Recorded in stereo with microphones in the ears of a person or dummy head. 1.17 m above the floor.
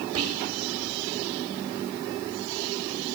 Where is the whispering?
85° right, 4.5 m.